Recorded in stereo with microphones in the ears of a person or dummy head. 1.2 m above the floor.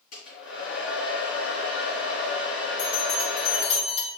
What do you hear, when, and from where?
0.1 s a hair dryer: 50° left (ahead or behind), 3.5 m
2.8 s a bell: 75° left (ahead or behind), 2.5 m